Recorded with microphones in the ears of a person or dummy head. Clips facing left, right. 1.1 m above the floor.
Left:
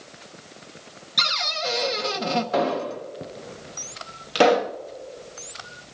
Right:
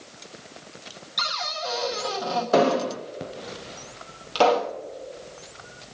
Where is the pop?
20° left (ahead or behind), 0.7 m.